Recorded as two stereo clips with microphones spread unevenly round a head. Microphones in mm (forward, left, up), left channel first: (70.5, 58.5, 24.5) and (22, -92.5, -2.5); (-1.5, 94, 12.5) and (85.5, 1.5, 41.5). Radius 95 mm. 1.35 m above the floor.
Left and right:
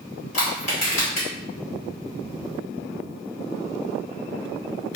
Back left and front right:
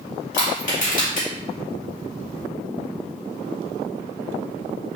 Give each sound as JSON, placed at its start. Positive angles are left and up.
{"t": 0.3, "sound": "crushing", "azimuth_deg": 125, "distance_m": 2.0}